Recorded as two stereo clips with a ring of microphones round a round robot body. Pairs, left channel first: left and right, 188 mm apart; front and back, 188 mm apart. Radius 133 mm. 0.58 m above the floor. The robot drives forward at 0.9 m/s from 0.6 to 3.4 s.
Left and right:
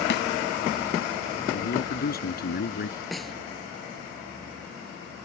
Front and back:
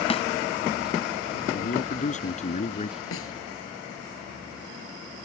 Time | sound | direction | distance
0.1 | a snare drum | 60° left | ?
1.5 | a man speaking | 50° left | ?
3.1 | a snare drum | straight ahead | ?